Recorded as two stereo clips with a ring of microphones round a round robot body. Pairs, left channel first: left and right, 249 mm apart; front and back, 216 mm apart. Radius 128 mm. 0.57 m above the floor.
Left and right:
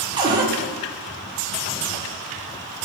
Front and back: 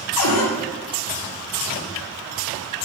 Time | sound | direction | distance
0.2 | a cupboard door | 15° right | 0.5 m